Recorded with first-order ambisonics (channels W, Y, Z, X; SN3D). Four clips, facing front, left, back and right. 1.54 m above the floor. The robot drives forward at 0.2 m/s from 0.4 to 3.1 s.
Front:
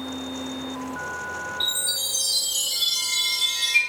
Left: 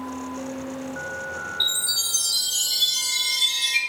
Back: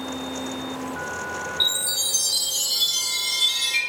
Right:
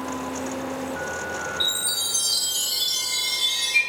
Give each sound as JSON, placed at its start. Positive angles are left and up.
{"t": 1.6, "sound": "a chime", "azimuth_deg": 165, "distance_m": 1.4}